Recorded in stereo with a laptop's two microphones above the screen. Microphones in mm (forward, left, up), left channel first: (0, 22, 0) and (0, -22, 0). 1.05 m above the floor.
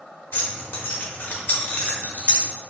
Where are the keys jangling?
45° left (ahead or behind), 0.8 m.